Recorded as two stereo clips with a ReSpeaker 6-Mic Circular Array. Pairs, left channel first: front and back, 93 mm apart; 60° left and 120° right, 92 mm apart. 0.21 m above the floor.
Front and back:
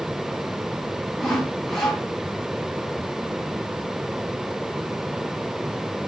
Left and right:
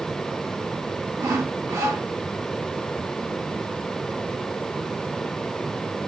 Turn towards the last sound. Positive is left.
turn(degrees=-80)